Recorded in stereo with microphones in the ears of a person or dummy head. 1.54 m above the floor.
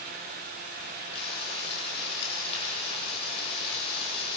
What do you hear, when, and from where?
1.1 s frying: 35° left (ahead or behind), 7 m